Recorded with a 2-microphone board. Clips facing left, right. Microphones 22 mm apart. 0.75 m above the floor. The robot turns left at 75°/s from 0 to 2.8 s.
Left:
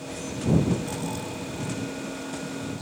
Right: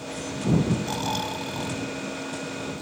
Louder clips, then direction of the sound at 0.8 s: Right 4 dB; 45° right.